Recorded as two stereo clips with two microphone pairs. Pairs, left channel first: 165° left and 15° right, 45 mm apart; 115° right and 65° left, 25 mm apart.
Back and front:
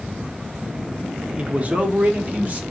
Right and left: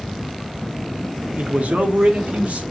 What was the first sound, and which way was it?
A man speaking, 45° left.